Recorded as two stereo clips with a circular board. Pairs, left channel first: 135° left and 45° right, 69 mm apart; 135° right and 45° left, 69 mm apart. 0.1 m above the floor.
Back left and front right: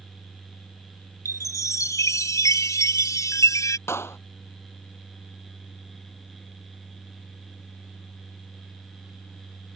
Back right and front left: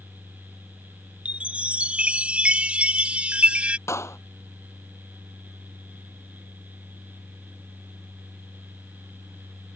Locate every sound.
1.2 s a chime: 115° left
3.9 s a clap: 175° right